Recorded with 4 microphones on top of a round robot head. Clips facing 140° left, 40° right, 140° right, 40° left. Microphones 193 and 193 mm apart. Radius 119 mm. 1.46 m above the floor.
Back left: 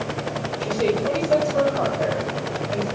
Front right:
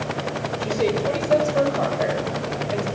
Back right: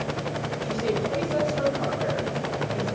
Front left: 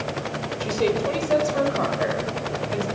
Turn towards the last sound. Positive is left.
turn(degrees=35)